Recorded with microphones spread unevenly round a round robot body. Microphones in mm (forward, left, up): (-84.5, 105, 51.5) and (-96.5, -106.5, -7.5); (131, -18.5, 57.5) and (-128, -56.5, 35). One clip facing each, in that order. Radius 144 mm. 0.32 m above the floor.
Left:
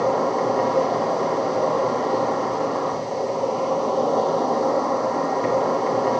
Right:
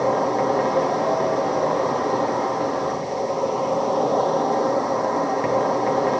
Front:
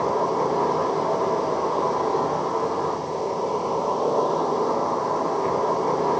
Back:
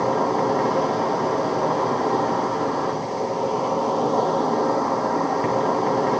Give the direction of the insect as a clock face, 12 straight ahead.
6 o'clock.